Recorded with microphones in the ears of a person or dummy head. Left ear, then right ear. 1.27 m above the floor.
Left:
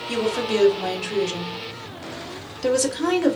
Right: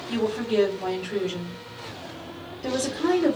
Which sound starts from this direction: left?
A woman speaking, at 0.1 s.